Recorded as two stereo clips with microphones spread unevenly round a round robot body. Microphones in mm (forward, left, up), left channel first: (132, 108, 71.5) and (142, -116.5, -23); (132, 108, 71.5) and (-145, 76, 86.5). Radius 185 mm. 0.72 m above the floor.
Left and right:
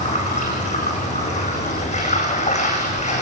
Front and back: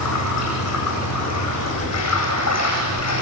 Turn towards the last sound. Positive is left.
turn(degrees=35)